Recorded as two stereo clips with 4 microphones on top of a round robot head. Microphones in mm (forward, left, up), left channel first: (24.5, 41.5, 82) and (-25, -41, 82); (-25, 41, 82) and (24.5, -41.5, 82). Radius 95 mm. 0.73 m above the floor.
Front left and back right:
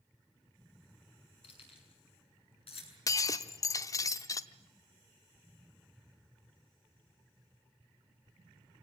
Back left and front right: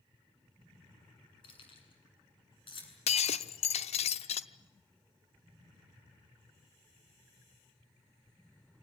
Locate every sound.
1.4 s keys jangling: 85° left, 7 m
3.1 s breaking glass: 115° left, 0.8 m